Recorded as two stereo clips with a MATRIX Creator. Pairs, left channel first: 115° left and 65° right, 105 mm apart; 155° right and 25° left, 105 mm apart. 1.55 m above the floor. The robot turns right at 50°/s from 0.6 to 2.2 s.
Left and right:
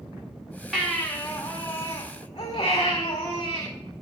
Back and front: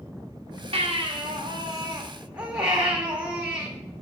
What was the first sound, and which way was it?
A baby crying, 25° left.